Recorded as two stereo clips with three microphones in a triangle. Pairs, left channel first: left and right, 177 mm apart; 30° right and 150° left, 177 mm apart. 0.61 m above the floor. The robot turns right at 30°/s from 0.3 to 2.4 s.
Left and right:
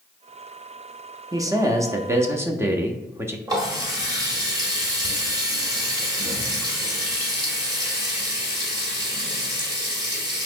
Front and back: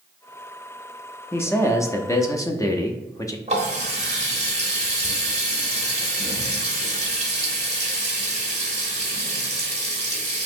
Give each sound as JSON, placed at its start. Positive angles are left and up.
{"t": 1.3, "sound": "a man speaking", "azimuth_deg": -80, "distance_m": 0.6}
{"t": 3.5, "sound": "a running tap", "azimuth_deg": -155, "distance_m": 1.4}